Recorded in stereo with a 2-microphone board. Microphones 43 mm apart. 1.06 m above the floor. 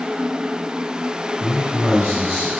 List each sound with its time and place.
1.4 s a man speaking: 80° right, 3.5 m